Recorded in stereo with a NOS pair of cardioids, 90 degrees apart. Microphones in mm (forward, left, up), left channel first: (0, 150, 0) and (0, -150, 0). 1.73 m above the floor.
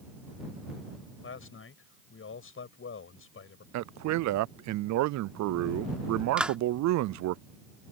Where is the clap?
5° right.